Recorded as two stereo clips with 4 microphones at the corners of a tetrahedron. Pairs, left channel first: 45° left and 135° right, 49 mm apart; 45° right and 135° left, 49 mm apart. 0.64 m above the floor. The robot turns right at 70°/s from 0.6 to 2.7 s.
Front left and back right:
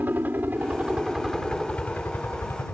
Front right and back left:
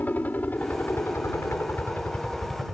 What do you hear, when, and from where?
0.0 s a helicopter: 95° right; by 2.8 s 55° left